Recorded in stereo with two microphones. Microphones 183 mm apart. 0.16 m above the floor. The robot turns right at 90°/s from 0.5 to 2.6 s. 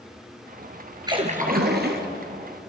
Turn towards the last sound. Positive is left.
turn(degrees=-20)